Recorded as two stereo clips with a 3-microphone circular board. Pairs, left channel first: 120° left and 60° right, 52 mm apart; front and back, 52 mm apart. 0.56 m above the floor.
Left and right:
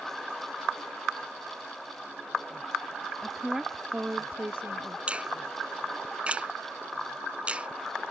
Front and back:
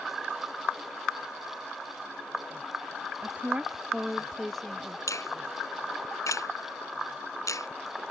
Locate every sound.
3.2 s a woman speaking: 165° right; by 5.0 s 75° right
5.1 s a finger snap: 10° left